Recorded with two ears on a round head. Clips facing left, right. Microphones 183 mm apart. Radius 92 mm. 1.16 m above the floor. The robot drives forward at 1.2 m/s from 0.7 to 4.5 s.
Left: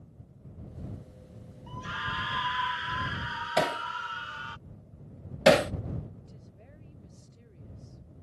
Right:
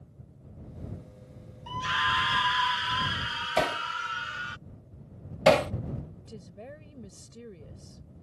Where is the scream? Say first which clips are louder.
Right 6 dB; 75° right (ahead or behind); by 4.6 s 25° right (ahead or behind).